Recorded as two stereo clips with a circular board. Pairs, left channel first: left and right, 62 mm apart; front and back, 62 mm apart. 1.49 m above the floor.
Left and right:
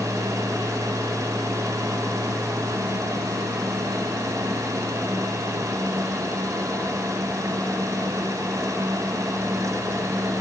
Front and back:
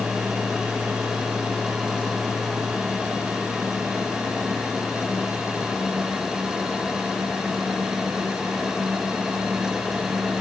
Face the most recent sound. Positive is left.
No sound to turn to.